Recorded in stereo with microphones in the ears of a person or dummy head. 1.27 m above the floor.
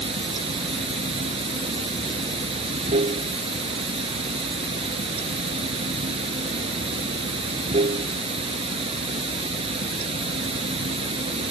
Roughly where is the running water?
Right.